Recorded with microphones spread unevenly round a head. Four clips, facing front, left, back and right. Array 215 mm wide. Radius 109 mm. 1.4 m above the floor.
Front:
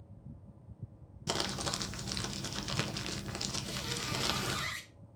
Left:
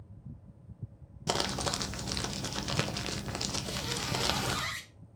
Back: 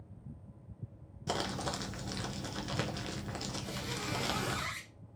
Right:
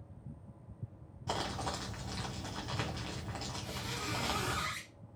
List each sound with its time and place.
1.3 s crumpling: 85° left, 0.7 m
3.6 s a squeak: 110° left, 3 m